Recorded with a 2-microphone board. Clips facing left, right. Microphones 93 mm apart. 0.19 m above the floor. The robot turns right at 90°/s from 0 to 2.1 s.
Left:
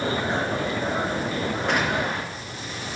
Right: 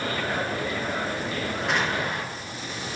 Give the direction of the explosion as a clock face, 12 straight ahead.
12 o'clock.